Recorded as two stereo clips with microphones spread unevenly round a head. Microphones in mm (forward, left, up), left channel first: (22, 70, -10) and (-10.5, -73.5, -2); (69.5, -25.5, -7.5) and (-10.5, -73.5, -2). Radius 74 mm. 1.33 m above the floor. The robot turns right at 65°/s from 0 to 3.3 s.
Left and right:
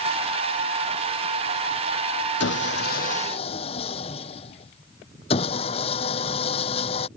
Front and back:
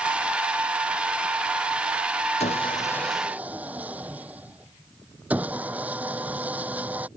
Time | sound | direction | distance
2.4 | sawing | 70° left | ?